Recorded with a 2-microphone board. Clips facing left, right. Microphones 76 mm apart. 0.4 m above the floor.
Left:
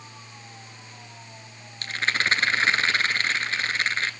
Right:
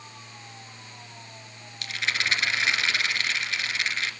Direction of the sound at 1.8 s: 40° left (ahead or behind).